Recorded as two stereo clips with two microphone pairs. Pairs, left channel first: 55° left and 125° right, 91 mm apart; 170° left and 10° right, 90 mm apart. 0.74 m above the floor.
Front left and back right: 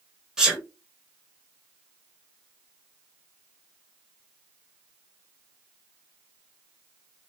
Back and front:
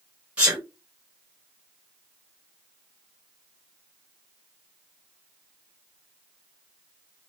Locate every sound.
0.4 s a sneeze: 60° right, 0.8 m